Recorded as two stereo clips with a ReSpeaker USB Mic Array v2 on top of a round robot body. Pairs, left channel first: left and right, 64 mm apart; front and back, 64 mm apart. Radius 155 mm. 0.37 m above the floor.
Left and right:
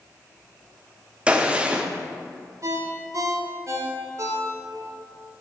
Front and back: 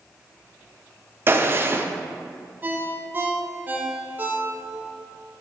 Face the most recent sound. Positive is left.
turn(degrees=-120)